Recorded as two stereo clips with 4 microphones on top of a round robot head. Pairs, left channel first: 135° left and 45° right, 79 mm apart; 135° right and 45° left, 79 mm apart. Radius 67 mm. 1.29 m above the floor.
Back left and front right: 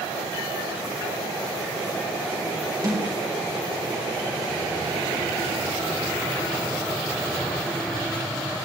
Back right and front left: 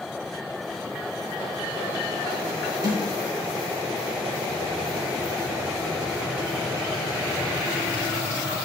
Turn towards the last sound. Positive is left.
turn(degrees=0)